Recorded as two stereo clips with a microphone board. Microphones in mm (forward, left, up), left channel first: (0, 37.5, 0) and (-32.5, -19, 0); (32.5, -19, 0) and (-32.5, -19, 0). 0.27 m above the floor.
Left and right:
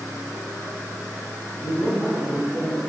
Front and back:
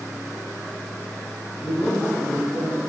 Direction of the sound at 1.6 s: 25° left.